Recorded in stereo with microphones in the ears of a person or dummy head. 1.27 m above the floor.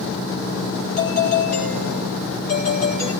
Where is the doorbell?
40° left (ahead or behind), 8 m.